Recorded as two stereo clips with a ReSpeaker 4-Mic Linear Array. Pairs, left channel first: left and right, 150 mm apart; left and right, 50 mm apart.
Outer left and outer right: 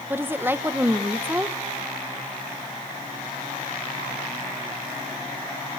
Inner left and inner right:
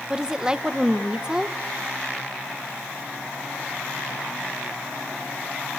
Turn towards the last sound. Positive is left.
turn(degrees=-15)  # may be behind; listen again after turning